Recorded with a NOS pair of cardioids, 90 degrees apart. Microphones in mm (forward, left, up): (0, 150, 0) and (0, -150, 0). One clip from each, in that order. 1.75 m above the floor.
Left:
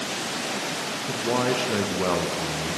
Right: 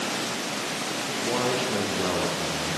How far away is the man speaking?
About 0.6 m.